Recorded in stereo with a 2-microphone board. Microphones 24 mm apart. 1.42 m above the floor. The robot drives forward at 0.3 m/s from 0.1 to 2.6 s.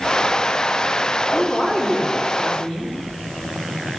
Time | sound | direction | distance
1.3 | a woman speaking | 80° left | 2.5 m